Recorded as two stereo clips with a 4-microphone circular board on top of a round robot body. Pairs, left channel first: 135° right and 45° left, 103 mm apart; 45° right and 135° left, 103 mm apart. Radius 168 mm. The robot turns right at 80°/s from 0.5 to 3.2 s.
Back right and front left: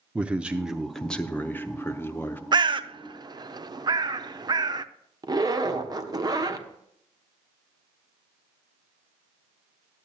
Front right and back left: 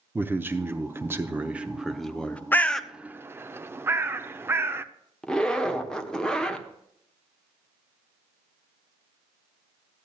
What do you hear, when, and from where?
0.1 s a man speaking: 105° left, 0.9 m; by 2.4 s 100° right, 0.9 m
2.5 s a bird: 20° left, 0.7 m; by 4.8 s 75° left, 0.7 m
5.2 s a zipper: 35° left, 1.3 m